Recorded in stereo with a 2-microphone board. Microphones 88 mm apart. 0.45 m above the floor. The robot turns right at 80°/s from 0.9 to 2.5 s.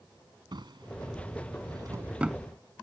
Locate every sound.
0.5 s a drawer: 60° right (ahead or behind); by 2.4 s centre (ahead or behind)